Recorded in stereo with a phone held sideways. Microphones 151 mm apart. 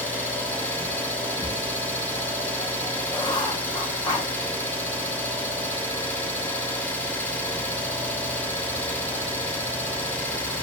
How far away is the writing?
About 0.7 m.